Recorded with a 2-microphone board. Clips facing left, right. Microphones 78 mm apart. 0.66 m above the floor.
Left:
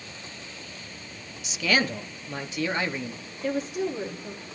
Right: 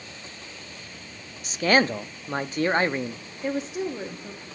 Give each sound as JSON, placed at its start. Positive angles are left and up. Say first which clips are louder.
{"t": 1.4, "sound": "a man speaking", "louder": "right 5 dB", "side_deg": -40, "distance_m": 0.6}
{"t": 3.4, "sound": "a woman speaking", "louder": "even", "side_deg": -20, "distance_m": 1.1}